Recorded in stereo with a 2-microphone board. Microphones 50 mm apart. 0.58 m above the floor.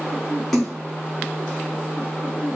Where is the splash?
10° left (ahead or behind), 1.1 m.